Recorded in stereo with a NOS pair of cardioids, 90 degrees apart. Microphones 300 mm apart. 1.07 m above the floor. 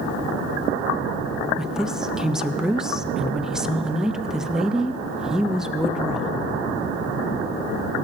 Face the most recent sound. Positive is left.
turn(degrees=0)